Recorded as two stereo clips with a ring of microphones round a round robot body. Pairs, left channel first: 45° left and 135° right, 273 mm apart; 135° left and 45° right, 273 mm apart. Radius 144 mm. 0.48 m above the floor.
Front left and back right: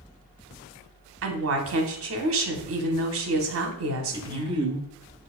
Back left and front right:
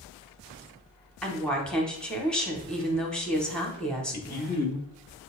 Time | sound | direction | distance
1.2 | a woman speaking | 140° right | 1.0 m
4.1 | a man speaking | 160° left | 0.9 m